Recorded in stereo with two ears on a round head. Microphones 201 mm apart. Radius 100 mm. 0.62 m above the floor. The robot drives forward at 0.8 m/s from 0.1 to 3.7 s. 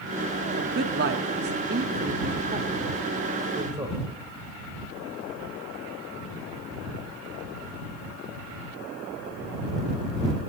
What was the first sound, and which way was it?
A man speaking, 40° right (ahead or behind).